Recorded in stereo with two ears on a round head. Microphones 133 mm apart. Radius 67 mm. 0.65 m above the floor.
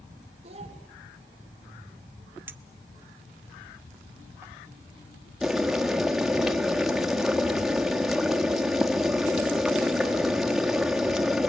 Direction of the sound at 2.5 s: 15° right (ahead or behind).